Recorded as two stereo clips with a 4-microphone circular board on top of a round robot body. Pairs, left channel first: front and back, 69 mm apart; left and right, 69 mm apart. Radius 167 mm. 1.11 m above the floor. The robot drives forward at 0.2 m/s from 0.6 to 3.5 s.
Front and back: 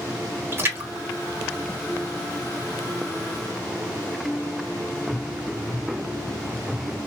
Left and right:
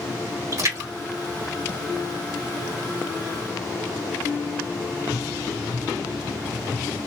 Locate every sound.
0.5 s a splash: 125° right, 2.5 m; by 2.4 s 135° right, 2.5 m